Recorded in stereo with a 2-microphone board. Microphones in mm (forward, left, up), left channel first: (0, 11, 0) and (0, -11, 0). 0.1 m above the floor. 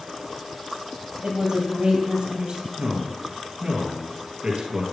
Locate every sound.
1.2 s a woman speaking: 45° right (ahead or behind), 2.5 m
2.8 s a man speaking: 50° right (ahead or behind), 1.9 m